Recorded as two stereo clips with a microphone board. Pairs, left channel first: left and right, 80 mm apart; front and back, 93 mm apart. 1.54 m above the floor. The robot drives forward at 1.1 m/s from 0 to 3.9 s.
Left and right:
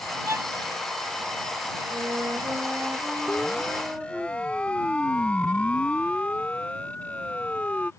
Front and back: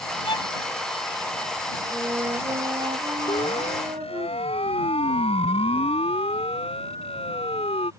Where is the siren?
10° left; by 7.9 s 15° left.